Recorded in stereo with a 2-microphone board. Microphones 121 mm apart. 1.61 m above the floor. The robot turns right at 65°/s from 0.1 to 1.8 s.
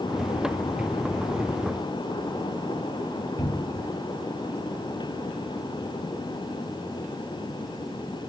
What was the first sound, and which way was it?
A cupboard door, 30° left (ahead or behind).